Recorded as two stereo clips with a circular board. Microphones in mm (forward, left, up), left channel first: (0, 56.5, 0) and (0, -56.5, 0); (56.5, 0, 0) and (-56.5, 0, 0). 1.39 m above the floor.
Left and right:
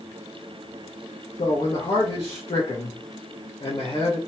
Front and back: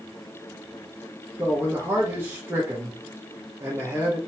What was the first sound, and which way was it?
A man speaking, 115° left.